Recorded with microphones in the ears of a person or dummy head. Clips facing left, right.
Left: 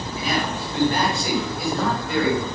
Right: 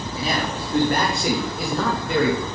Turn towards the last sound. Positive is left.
turn(degrees=-80)